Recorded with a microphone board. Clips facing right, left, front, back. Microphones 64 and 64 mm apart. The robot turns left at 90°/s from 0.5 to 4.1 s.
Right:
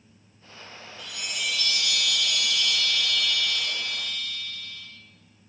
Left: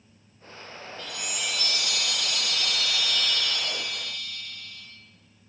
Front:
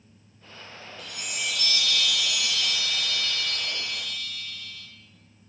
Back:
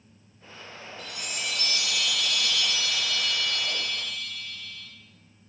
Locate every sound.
1.0 s a chime: 165° right, 0.5 m; by 4.9 s 85° right, 0.5 m